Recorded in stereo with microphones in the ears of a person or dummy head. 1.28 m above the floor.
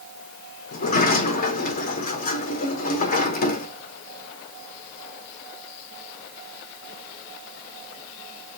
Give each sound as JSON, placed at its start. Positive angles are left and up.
{"t": 0.7, "sound": "a sliding door", "side_deg": 50, "distance_m": 0.8}